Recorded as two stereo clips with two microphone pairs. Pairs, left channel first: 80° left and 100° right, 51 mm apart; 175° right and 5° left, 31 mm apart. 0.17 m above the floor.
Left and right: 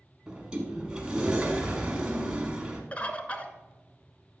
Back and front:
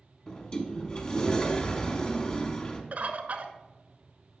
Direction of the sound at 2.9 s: 20° left.